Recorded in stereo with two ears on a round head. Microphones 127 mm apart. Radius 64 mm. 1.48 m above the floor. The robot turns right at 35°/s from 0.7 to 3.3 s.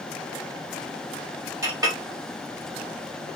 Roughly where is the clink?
Centre.